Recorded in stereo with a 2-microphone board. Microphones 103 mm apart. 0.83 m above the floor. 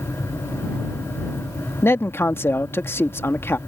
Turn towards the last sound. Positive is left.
turn(degrees=20)  # may be behind; listen again after turning